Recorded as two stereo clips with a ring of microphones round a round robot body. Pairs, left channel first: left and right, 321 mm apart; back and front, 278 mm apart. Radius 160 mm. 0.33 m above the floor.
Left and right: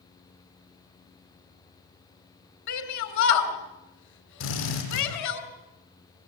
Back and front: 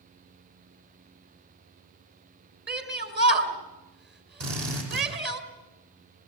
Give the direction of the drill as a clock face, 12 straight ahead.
11 o'clock.